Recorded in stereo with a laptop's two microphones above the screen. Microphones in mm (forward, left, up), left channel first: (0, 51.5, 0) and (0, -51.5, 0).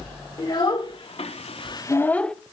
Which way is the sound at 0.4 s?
45° left (ahead or behind).